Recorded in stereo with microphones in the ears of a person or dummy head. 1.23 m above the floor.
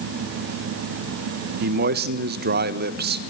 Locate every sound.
1.6 s a man speaking: 50° right (ahead or behind), 1.3 m